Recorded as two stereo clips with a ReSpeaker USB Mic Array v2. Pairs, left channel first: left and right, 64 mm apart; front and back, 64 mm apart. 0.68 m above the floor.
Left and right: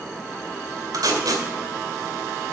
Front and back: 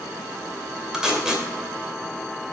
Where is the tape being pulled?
100° right, 2.5 m.